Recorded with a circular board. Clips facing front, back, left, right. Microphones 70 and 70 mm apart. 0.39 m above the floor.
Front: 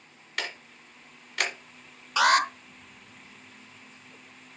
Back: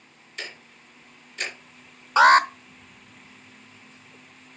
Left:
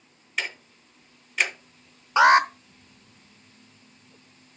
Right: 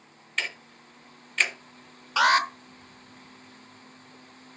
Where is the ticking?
5° left, 1.6 m.